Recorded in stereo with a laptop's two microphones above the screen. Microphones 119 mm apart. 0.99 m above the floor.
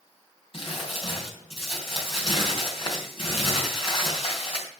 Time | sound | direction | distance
0.5 | crumpling | 55° left (ahead or behind) | 3.5 m